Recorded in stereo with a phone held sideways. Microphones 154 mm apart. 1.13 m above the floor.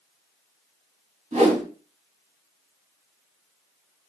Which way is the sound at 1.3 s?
45° right (ahead or behind).